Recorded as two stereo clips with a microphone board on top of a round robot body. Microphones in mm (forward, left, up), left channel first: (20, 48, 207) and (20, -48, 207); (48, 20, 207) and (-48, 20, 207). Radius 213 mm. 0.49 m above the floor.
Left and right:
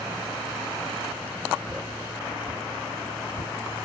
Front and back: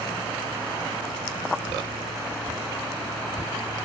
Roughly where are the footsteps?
Behind right.